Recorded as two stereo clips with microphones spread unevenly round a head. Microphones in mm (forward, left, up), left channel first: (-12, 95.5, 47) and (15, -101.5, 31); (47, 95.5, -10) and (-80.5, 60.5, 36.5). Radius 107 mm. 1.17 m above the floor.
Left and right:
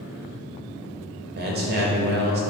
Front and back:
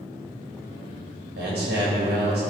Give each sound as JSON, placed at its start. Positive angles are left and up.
{"t": 1.4, "sound": "a man speaking", "azimuth_deg": -120, "distance_m": 1.6}